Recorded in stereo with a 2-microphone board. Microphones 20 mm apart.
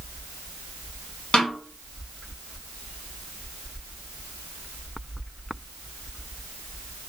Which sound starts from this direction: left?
A snare drum, at 1.3 s.